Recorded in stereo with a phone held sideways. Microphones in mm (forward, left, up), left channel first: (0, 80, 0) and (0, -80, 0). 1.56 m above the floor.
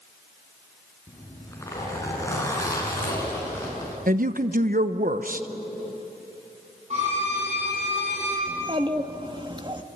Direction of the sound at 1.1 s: 20° left (ahead or behind).